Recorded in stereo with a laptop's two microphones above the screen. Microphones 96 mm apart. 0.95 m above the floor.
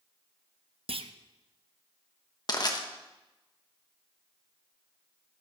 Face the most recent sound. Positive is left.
turn(degrees=45)  # may be behind; listen again after turning